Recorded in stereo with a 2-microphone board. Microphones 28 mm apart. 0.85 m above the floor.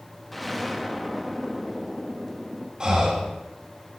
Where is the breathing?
30° right (ahead or behind), 3 m.